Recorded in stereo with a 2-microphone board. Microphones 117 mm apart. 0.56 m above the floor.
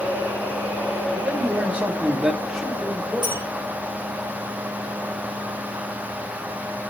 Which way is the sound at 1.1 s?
15° right (ahead or behind).